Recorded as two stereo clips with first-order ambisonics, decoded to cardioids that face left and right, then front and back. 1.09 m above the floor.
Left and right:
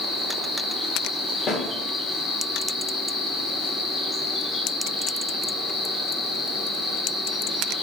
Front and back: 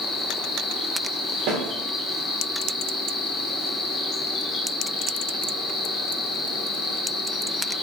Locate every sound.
0.0 s an insect: 15° left, 0.8 m
1.5 s a snare drum: 145° left, 1.2 m